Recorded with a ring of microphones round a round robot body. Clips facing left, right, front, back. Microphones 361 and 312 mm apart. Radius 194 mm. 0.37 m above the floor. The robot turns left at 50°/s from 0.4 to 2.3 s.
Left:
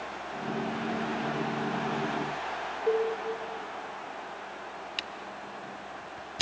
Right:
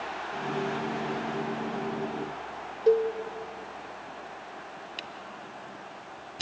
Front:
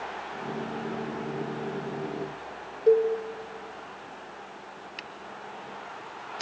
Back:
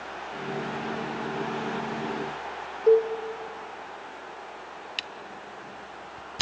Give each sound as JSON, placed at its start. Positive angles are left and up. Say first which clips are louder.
{"t": 2.9, "sound": "a cowbell", "louder": "right 5 dB, back 1 dB", "azimuth_deg": -90, "distance_m": 2.0}
{"t": 5.0, "sound": "a camera shutter", "louder": "left 1 dB, back 1 dB", "azimuth_deg": 155, "distance_m": 1.0}